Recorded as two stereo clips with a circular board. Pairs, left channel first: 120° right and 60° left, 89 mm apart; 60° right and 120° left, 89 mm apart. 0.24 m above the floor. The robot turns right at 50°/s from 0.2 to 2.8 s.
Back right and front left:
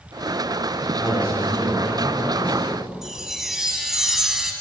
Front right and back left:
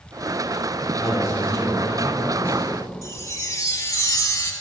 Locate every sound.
1.0 s a man speaking: 90° left, 2.5 m; by 2.7 s straight behind, 2.5 m
3.0 s a chime: 25° right, 0.6 m